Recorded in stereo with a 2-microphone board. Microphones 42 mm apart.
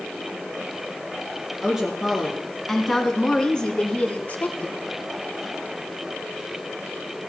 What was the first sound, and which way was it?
A woman speaking, 5° right (ahead or behind).